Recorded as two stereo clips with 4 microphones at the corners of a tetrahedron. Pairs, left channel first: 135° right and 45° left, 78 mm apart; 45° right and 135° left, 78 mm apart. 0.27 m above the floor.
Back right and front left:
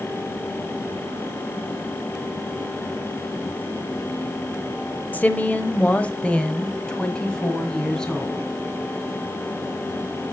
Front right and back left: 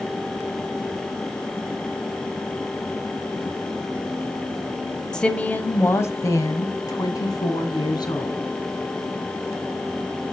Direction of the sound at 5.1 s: 110° right.